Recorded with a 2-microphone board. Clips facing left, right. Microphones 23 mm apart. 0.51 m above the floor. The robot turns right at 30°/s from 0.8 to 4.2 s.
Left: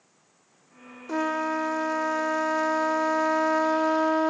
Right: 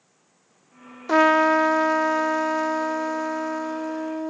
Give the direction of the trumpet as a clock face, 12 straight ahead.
2 o'clock.